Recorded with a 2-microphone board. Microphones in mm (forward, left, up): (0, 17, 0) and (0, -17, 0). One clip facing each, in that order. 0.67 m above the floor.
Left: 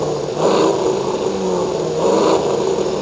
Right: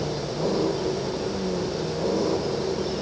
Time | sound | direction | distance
0.0 | an engine running | 75° left (ahead or behind) | ?